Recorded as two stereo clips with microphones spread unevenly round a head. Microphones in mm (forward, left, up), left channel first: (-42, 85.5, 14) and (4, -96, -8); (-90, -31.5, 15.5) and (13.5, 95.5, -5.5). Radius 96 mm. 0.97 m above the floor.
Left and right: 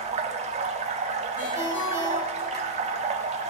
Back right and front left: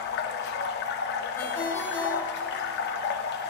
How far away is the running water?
About 0.9 m.